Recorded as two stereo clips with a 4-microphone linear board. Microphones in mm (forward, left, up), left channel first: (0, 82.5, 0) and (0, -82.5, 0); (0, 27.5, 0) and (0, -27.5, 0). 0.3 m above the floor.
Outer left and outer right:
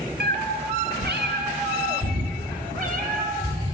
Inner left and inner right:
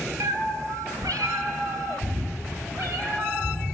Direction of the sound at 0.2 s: 75° right (ahead or behind).